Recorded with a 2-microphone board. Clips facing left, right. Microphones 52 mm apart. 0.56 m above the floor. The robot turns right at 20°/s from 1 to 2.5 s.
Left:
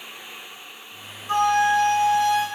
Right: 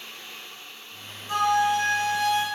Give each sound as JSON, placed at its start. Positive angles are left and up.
{"t": 1.3, "sound": "a flute", "side_deg": 40, "distance_m": 0.7}